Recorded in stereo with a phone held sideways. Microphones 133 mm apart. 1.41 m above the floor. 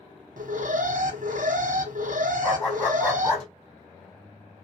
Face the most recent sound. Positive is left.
turn(degrees=10)  # may be behind; listen again after turning